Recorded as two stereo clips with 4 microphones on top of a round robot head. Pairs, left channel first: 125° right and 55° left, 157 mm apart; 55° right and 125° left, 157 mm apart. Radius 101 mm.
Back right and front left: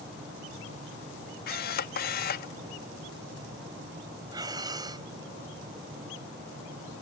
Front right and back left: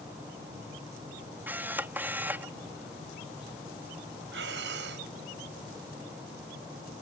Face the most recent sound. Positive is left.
turn(degrees=120)